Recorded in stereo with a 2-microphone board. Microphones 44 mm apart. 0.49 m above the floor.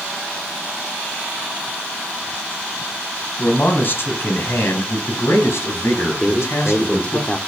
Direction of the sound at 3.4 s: 40° left (ahead or behind).